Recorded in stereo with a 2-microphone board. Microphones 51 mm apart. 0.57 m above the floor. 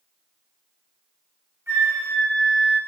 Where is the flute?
65° right (ahead or behind), 2.5 m.